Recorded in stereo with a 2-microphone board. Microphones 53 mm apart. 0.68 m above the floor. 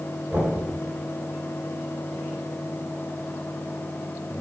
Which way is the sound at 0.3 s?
30° right (ahead or behind).